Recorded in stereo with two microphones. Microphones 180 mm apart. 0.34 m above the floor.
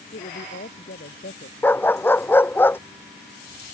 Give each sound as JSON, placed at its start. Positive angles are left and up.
{"t": 0.1, "sound": "a woman speaking", "side_deg": 80}
{"t": 1.6, "sound": "a dog barking", "side_deg": 10}